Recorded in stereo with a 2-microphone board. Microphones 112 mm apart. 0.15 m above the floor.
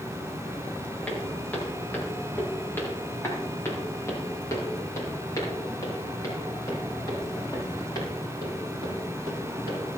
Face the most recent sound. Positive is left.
turn(degrees=40)  # may be behind; listen again after turning